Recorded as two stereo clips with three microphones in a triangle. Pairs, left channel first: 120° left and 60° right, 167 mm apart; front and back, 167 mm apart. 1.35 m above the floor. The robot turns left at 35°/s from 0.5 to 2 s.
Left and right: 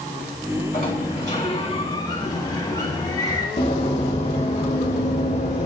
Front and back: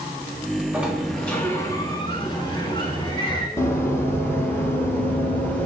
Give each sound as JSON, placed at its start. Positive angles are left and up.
{"t": 0.7, "sound": "a sliding door", "azimuth_deg": 100, "distance_m": 3.5}
{"t": 3.6, "sound": "running footsteps", "azimuth_deg": 70, "distance_m": 2.5}